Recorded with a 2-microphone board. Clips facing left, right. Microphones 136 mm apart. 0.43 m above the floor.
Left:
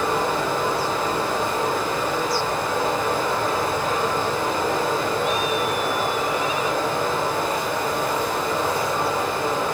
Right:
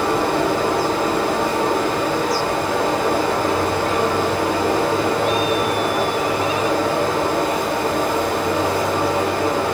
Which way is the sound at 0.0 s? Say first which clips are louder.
Right 4 dB; 75° right (ahead or behind).